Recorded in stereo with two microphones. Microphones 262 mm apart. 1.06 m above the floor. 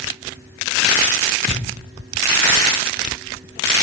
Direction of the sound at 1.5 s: 35° right (ahead or behind).